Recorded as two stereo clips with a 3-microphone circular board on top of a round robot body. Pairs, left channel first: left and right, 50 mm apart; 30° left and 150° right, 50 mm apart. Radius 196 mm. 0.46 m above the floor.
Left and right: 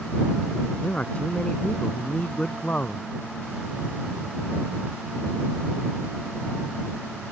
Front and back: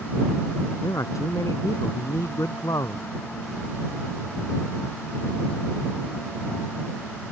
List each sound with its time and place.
0.8 s a man speaking: 20° left; by 3.0 s 25° left